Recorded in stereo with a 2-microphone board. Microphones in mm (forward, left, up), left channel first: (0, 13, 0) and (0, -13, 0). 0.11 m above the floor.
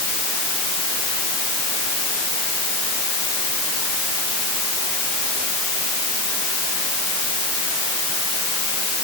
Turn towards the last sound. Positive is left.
No sound to turn to.